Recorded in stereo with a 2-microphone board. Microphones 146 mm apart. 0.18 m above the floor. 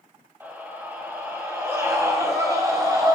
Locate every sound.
0.4 s a scream: 15° right (ahead or behind), 5.5 m; by 3.1 s 25° right (ahead or behind), 4.5 m